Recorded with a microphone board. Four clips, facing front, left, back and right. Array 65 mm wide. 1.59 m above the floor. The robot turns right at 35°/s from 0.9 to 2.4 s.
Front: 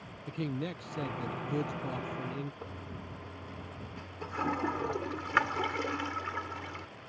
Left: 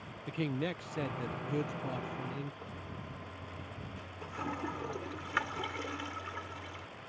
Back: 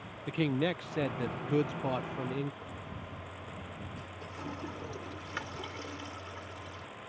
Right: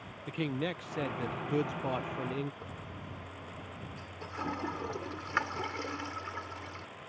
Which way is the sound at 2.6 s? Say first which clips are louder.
Even, even; 15° right.